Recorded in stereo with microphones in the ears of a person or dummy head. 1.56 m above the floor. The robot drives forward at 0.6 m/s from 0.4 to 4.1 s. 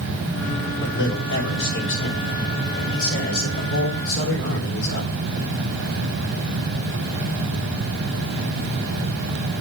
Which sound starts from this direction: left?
A man speaking, at 0.8 s.